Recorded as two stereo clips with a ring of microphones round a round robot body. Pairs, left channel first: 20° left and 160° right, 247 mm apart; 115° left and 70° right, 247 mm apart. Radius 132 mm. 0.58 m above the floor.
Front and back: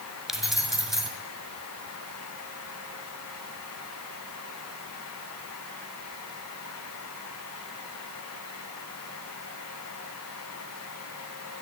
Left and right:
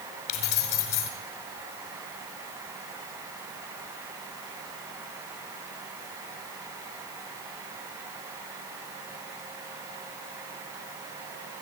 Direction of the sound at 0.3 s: 115° left.